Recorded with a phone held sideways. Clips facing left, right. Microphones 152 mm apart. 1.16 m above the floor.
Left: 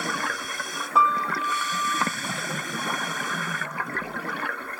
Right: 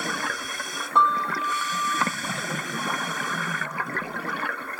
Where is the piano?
5° left (ahead or behind).